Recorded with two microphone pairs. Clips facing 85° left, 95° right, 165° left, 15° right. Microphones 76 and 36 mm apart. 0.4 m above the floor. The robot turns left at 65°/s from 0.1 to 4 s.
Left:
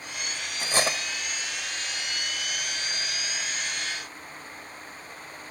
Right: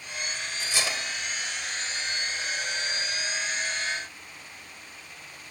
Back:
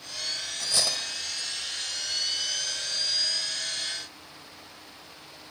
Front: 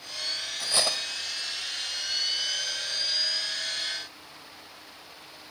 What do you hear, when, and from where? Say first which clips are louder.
0.6 s cutlery clinking: left 5 dB, front 1 dB; 55° left, 0.9 m; by 1.0 s 30° left, 0.9 m